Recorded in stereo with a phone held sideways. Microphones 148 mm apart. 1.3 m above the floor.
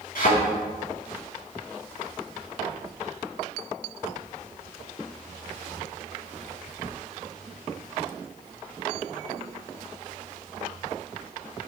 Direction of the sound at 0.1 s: 75° left (ahead or behind).